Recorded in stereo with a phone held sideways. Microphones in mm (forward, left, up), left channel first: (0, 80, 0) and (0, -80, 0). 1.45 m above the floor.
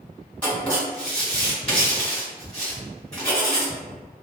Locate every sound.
0.4 s writing: 5° left (ahead or behind), 1.5 m